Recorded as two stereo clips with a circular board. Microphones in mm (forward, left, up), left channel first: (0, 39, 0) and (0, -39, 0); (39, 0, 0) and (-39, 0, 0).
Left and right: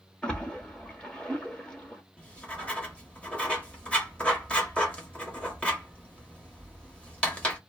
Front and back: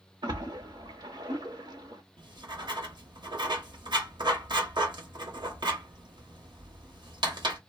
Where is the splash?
170° left, 0.8 m.